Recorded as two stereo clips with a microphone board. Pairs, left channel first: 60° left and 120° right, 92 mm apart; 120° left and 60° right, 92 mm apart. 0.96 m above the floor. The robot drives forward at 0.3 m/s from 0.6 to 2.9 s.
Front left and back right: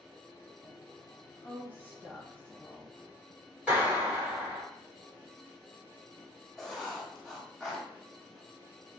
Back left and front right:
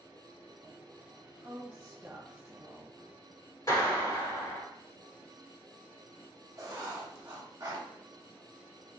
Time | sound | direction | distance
1.4 | a woman speaking | 10° right | 1.0 m
3.7 | a clap | 165° left | 1.7 m
6.6 | writing | 25° right | 0.7 m